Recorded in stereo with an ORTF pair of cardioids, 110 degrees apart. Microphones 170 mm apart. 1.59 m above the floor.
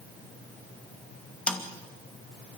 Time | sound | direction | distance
1.5 | a snare drum | 5° left | 2.5 m